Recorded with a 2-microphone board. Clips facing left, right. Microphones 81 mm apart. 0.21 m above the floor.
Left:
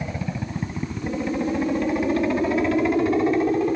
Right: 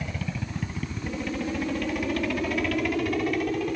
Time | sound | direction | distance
0.0 | a helicopter | 25° left (ahead or behind) | ?